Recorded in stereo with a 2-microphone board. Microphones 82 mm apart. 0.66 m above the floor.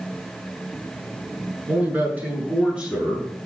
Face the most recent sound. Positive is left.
turn(degrees=-10)  # may be behind; listen again after turning